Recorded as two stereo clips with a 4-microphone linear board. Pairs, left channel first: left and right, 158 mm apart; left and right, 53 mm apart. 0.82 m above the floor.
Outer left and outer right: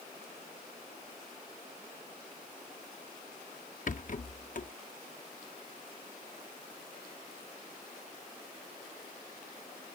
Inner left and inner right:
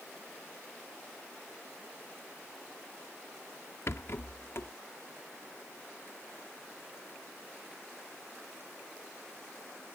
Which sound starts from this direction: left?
A rattle, at 3.9 s.